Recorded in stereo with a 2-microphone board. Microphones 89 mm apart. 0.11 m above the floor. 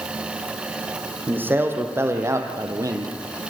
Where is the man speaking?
20° right (ahead or behind), 4.5 m; by 3.1 s 50° right (ahead or behind), 3 m.